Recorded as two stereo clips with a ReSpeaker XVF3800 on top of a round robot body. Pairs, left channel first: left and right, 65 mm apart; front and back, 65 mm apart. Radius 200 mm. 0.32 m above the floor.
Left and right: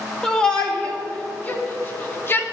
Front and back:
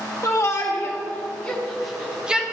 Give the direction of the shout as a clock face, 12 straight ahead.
12 o'clock.